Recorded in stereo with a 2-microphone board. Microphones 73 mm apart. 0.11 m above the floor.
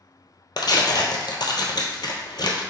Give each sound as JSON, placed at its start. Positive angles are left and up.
{"t": 0.6, "sound": "tearing paper", "side_deg": 70, "distance_m": 0.7}